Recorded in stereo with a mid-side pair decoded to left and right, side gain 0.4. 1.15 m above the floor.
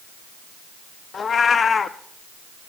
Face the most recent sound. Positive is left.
turn(degrees=50)